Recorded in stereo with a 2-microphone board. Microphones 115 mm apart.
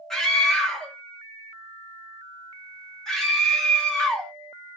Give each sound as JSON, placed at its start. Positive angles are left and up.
{"t": 0.1, "sound": "a scream", "side_deg": 5, "distance_m": 1.1}